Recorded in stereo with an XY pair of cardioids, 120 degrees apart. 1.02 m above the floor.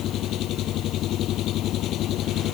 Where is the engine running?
65° left.